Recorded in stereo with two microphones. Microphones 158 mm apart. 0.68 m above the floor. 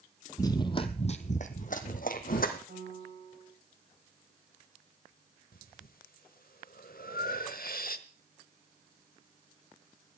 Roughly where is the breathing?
Left.